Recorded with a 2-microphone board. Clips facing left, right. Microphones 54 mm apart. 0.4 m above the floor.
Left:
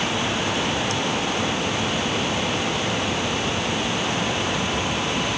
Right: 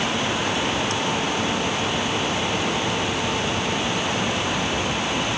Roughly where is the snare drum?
No snare drum in this recording.